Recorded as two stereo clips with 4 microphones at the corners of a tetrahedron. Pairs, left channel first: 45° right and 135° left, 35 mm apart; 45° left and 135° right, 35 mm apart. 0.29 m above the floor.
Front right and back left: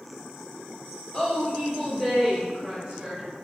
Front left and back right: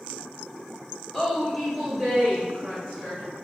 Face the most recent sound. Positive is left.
turn(degrees=-175)